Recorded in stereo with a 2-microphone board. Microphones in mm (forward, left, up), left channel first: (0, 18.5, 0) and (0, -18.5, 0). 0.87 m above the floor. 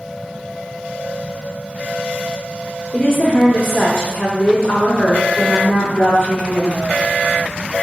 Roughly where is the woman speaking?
Left.